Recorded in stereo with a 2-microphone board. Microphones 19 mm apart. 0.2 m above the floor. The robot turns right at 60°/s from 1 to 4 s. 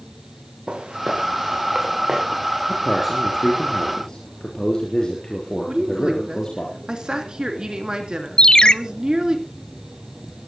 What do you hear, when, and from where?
0.7 s footsteps: 70° right (ahead or behind), 4 m; by 2.2 s 25° right (ahead or behind), 4 m
2.7 s a man speaking: 30° right, 3.5 m; by 6.7 s 45° left, 3.5 m
5.7 s a woman speaking: 45° right (ahead or behind), 2.5 m
8.4 s a ringtone: 50° left (ahead or behind), 0.5 m